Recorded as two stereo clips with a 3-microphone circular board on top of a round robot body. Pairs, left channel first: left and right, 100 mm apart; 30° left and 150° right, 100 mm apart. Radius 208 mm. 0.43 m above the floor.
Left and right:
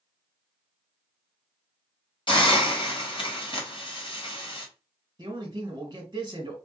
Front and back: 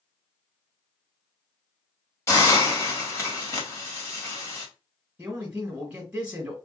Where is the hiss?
85° left, 1.9 m.